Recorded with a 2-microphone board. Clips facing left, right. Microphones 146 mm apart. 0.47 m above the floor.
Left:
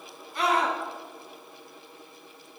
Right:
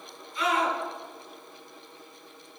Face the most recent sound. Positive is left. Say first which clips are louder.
# left 1 dB
turn(degrees=75)  # may be behind; listen again after turning